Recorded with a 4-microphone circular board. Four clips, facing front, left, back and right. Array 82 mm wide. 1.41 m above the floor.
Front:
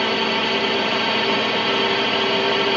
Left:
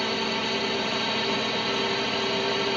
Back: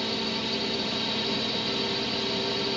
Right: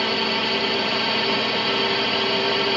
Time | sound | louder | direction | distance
0.0 | a drone | right 4 dB, front 10 dB | 15° right | ?